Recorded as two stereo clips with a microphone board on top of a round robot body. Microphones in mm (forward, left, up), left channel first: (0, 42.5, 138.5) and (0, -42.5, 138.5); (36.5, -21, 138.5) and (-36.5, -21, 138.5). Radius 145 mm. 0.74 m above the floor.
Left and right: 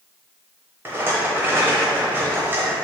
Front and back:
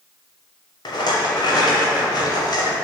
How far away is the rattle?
About 1.0 m.